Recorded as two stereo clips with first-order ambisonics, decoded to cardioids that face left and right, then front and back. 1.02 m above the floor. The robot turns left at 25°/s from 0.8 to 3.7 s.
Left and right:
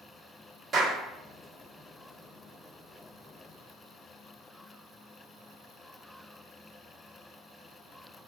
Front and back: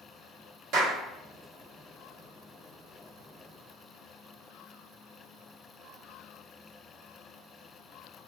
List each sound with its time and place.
0.7 s a clap: 155° right, 1.6 m; by 1.0 s 160° right, 1.6 m